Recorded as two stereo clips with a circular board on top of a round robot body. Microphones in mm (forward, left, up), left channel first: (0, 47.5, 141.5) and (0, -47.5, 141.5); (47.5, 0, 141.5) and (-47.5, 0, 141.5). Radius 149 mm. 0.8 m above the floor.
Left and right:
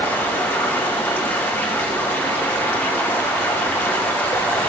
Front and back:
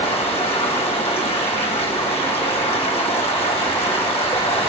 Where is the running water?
20° left, 1.9 m.